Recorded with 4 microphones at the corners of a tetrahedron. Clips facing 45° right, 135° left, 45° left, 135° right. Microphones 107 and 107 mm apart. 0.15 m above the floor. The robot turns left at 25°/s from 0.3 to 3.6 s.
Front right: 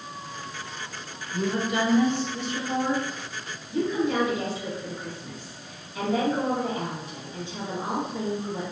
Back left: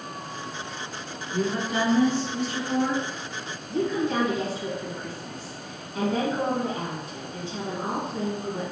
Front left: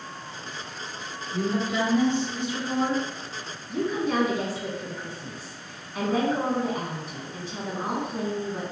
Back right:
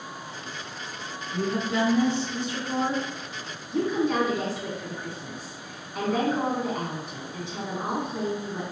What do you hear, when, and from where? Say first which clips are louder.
1.3 s a woman speaking: even, even; 135° left, 2.0 m; by 3.0 s 90° left, 2.0 m
3.7 s a woman speaking: even, back right 1 dB; 130° left, 1.9 m